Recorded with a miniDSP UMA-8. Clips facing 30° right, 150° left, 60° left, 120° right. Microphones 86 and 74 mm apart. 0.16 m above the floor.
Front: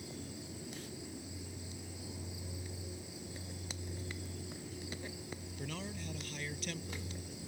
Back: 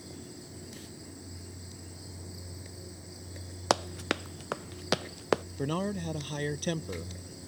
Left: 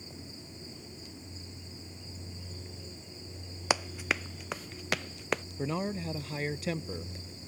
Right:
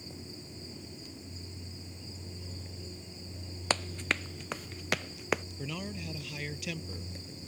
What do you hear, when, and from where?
3.7 s running footsteps: 140° left; by 5.4 s 155° left
5.6 s a man speaking: 115° left